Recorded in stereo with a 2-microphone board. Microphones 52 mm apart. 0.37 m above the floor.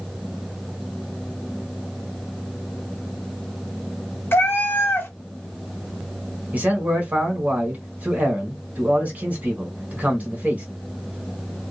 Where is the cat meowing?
40° left (ahead or behind), 0.7 m.